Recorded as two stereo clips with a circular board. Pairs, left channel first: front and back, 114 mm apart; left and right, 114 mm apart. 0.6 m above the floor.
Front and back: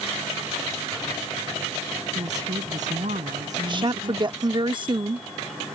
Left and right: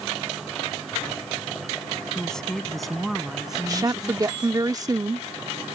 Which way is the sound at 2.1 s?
175° left.